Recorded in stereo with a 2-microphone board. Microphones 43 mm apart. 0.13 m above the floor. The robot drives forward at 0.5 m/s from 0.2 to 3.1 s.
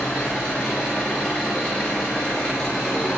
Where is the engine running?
20° left (ahead or behind), 8.5 m; by 3.2 s 25° left (ahead or behind), 7 m.